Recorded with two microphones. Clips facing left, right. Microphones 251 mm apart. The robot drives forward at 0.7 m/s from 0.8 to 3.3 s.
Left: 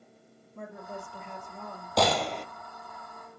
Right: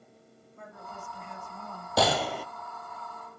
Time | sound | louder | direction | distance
0.6 | a woman speaking | left 6 dB | 65° left (ahead or behind) | 3.5 m
2.0 | a gunshot | even | 5° right (ahead or behind) | 1.3 m